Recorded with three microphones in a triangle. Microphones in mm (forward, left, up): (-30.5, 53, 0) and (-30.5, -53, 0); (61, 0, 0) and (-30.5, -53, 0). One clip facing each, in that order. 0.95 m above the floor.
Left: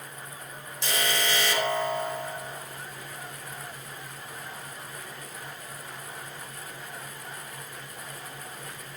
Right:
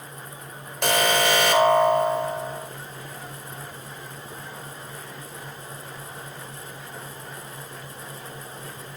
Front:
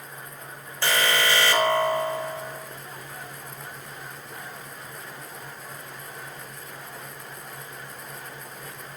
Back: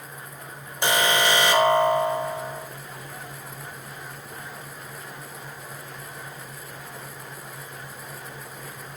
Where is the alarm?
80° right, 4.5 m.